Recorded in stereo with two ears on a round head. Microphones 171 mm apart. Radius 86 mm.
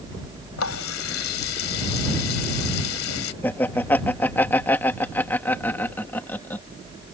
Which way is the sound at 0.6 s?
75° left (ahead or behind).